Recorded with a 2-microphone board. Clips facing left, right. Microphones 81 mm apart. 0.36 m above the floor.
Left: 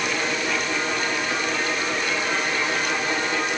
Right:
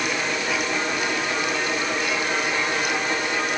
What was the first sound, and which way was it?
Only background noise.